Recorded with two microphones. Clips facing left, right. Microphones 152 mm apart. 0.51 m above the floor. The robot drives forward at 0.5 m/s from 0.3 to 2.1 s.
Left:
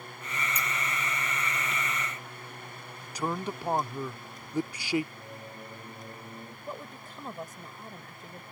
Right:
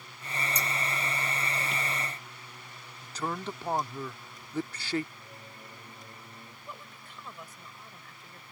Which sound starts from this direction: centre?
A man speaking, at 3.0 s.